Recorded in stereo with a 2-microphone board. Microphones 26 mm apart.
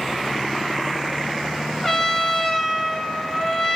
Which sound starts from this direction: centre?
A trumpet, at 1.8 s.